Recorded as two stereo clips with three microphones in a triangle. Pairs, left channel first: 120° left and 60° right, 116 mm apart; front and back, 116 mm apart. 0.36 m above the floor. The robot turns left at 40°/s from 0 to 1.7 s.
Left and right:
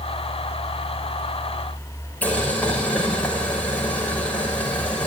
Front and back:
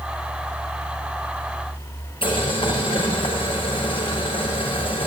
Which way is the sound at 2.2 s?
40° left.